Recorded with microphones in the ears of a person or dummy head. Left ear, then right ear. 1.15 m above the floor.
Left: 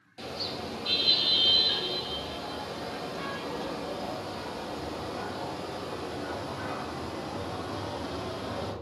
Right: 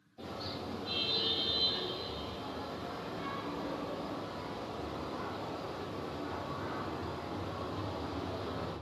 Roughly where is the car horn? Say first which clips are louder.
Left 6 dB; left.